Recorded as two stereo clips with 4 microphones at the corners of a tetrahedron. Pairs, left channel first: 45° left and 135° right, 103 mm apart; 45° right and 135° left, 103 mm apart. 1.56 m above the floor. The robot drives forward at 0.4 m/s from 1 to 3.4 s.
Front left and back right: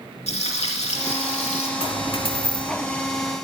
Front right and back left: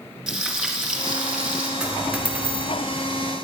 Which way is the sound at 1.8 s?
55° left.